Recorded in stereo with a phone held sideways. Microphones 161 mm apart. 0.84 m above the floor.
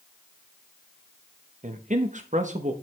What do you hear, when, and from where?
1.6 s a man speaking: 50° right (ahead or behind), 1.1 m